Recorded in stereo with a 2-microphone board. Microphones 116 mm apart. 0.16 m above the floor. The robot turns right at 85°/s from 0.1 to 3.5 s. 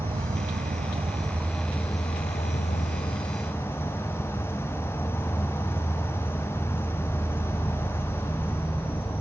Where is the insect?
125° right, 0.8 m; by 9.2 s 160° left, 0.8 m.